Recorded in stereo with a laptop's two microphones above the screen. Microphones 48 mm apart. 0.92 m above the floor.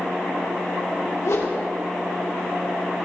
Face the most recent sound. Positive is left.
turn(degrees=75)  # may be behind; listen again after turning